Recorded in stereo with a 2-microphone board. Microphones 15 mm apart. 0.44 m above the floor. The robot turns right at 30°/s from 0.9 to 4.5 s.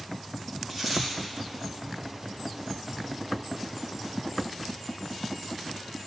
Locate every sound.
0.7 s a dropped coin: 5° left (ahead or behind), 4 m; by 1.1 s 10° left (ahead or behind), 4 m